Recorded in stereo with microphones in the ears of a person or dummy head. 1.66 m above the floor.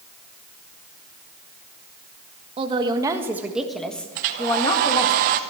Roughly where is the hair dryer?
Right.